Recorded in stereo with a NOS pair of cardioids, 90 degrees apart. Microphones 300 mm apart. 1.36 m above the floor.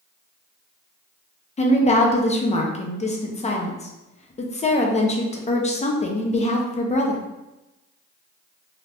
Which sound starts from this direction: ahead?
A woman speaking, at 1.6 s.